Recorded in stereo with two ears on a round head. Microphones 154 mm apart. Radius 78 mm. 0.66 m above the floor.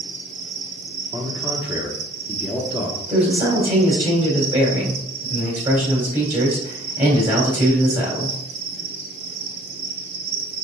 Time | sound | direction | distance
0.0 | an insect | 65° right (ahead or behind) | 1.7 m
1.1 | a man speaking | 10° right (ahead or behind) | 1.1 m
3.1 | a man speaking | 35° right (ahead or behind) | 3 m